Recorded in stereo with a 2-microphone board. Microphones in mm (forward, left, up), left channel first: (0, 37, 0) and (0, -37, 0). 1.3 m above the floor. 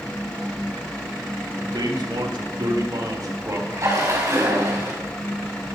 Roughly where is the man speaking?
Right.